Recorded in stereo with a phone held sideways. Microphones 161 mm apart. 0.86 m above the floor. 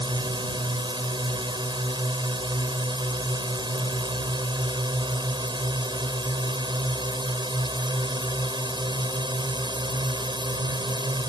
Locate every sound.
0.0 s a drone: 30° right (ahead or behind)